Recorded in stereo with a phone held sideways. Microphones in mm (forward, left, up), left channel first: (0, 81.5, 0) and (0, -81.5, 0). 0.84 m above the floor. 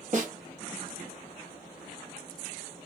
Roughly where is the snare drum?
Right.